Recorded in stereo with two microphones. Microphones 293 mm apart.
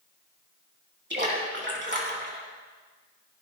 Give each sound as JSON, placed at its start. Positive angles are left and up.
{"t": 1.1, "sound": "a splash", "side_deg": -40, "distance_m": 3.0}